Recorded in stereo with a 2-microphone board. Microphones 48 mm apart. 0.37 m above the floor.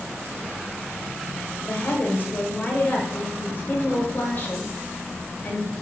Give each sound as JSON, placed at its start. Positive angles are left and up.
{"t": 1.7, "sound": "a woman speaking", "side_deg": 40, "distance_m": 1.3}